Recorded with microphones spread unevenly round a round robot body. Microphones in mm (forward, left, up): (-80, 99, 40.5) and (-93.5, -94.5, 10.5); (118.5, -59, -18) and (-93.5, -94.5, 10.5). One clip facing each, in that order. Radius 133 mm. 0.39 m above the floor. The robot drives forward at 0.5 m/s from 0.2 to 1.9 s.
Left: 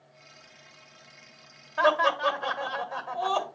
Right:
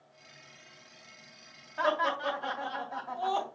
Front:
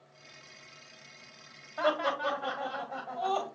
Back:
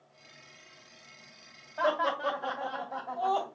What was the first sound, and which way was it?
Laughter, 90° left.